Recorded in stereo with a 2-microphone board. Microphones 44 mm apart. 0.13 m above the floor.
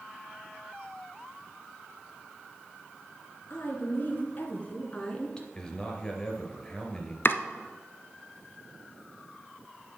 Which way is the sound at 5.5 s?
15° left (ahead or behind).